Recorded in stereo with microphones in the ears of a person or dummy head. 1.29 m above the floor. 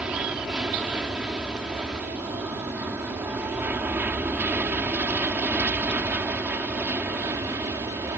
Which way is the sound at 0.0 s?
10° right (ahead or behind).